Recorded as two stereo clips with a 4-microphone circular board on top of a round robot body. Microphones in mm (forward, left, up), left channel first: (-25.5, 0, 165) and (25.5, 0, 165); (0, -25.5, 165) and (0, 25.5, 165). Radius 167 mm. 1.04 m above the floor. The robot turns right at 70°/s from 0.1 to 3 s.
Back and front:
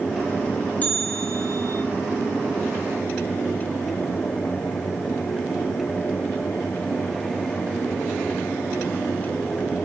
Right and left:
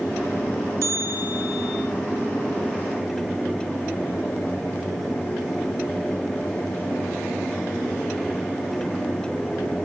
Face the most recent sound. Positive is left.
turn(degrees=-90)